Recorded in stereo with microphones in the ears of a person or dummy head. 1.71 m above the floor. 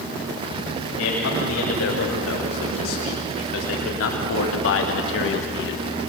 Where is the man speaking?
80° left, 6.5 m; by 5.8 s 65° left (ahead or behind), 1.7 m.